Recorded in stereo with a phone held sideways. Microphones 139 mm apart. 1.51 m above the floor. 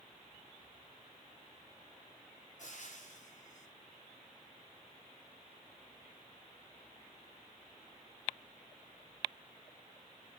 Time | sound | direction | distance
2.6 | frying | 60° left (ahead or behind) | 8 m